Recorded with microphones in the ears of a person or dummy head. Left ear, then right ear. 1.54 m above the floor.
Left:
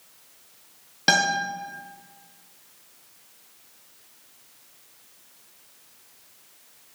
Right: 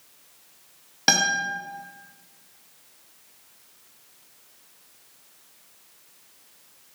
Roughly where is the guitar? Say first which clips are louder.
Even; centre.